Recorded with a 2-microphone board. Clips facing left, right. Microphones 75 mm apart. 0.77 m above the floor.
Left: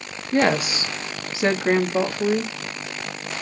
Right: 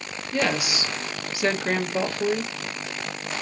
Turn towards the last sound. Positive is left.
turn(degrees=15)  # may be behind; listen again after turning